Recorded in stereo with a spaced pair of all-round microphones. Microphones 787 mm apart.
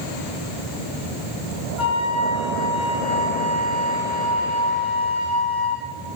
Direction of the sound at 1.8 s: 35° left (ahead or behind).